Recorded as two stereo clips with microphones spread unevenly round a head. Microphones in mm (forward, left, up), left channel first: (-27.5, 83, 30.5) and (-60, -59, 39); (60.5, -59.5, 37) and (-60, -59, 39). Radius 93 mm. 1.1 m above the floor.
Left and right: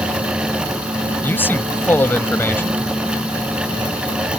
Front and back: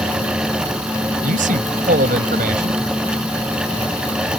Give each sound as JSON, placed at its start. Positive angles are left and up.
{"t": 1.2, "sound": "a man speaking", "azimuth_deg": 155}